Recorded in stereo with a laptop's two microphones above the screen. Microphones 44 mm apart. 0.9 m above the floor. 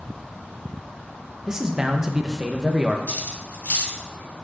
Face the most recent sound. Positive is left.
turn(degrees=40)  # may be behind; listen again after turning